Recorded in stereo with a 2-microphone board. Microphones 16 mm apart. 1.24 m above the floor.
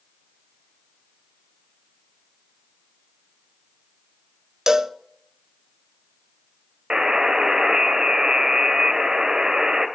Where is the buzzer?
50° right (ahead or behind), 2.0 m.